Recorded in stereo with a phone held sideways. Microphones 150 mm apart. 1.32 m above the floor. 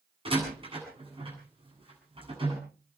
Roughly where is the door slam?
Right.